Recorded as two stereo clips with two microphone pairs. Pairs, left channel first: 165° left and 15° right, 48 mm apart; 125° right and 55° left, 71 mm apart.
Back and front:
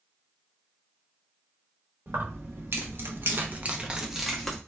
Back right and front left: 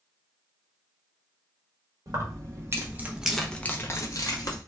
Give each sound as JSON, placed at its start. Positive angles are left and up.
{"t": 2.1, "sound": "keys jangling", "azimuth_deg": 20, "distance_m": 1.0}